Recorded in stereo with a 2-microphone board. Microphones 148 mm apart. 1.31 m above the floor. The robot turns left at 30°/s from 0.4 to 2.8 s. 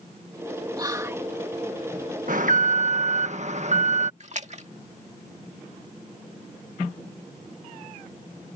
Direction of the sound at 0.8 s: 30° right (ahead or behind).